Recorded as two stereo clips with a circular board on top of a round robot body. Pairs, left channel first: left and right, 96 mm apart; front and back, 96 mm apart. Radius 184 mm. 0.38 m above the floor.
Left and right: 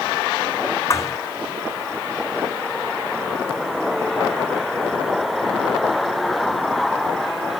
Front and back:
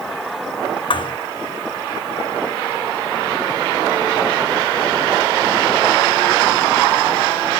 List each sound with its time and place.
0.9 s a thud: 35° left